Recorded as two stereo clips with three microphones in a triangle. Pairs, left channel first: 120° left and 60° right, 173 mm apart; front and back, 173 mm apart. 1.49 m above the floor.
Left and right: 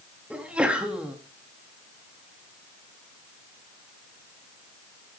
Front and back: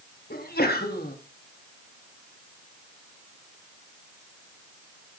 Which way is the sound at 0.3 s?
25° left.